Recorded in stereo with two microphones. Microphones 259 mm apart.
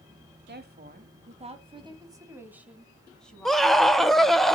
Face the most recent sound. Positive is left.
turn(degrees=0)  # may be behind; listen again after turning